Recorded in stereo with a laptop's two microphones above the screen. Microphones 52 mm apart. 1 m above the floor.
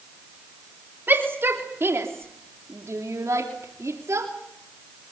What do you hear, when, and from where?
1.1 s a shout: 45° right (ahead or behind), 3.5 m; by 4.3 s 65° right (ahead or behind), 3 m